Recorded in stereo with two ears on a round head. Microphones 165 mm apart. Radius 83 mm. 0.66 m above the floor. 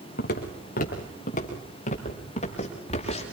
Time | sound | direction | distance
0.2 | footsteps | 55° left (ahead or behind) | 3.5 m